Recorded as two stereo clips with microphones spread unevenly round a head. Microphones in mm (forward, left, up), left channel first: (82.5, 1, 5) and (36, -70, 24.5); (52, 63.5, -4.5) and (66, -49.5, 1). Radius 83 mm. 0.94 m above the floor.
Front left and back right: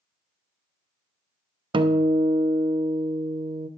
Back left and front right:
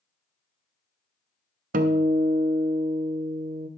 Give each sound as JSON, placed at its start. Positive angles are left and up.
{"t": 1.7, "sound": "a guitar", "azimuth_deg": -95, "distance_m": 0.6}